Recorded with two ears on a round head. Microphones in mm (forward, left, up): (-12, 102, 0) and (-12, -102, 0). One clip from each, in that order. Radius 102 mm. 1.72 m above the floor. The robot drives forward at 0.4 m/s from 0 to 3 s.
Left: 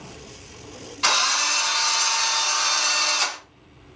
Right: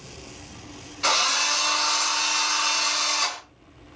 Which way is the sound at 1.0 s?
35° left (ahead or behind).